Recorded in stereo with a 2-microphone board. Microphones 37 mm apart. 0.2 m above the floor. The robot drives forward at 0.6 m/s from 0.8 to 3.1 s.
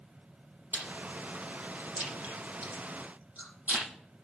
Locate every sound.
0.7 s chewing: 60° right (ahead or behind), 7 m; by 3.9 s 50° right (ahead or behind), 7.5 m